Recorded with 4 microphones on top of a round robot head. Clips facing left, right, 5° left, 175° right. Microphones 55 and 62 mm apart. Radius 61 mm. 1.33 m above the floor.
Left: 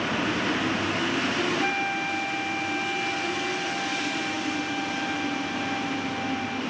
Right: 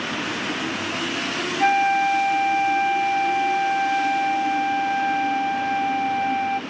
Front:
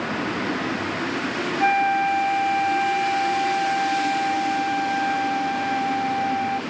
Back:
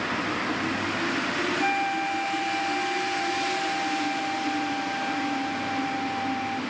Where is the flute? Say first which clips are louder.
Right 8 dB, front 10 dB; 50° right, 0.9 m.